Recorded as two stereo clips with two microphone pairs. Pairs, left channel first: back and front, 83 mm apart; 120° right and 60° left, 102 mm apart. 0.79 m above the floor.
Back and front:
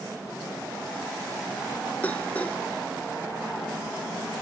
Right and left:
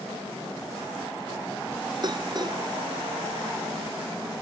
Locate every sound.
2.0 s dishes clattering: 110° left